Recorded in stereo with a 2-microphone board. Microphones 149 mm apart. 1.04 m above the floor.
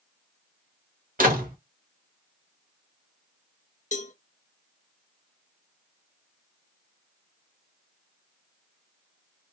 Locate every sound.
1.2 s a door slam: 70° right (ahead or behind), 1.7 m
3.9 s a cowbell: 55° left (ahead or behind), 0.6 m